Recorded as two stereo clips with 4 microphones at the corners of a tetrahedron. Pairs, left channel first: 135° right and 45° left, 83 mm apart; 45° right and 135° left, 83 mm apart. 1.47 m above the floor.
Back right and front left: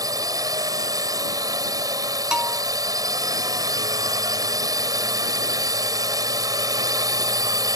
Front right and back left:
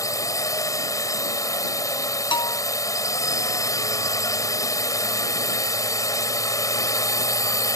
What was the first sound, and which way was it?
A drone, 5° left.